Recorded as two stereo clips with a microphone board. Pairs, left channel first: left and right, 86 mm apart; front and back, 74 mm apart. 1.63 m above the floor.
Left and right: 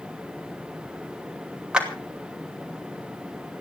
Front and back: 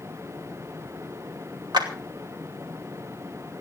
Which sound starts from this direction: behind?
A clap, at 1.7 s.